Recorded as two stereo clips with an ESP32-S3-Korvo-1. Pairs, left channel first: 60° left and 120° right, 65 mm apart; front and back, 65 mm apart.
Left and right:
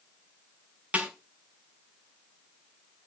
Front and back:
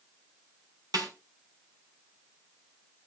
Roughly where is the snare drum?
Behind.